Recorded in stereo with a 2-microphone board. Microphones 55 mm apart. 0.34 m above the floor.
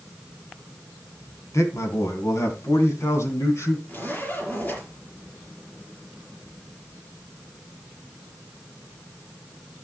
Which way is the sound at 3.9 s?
35° left (ahead or behind).